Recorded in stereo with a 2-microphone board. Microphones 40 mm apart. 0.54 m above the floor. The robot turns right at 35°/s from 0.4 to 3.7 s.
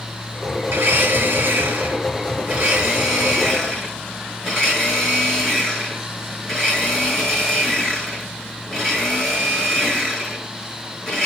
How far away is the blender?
About 5.5 m.